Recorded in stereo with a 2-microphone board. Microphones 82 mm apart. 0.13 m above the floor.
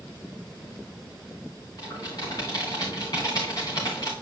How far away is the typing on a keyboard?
About 3.5 m.